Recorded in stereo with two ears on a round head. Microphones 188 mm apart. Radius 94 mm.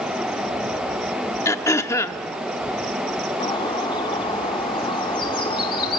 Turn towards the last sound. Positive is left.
turn(degrees=25)  # may be behind; listen again after turning